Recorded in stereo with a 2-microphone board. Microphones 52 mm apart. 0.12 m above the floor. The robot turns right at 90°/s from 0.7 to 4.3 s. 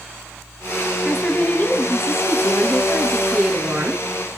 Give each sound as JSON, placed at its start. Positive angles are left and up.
{"t": 1.1, "sound": "a woman speaking", "azimuth_deg": -5, "distance_m": 2.5}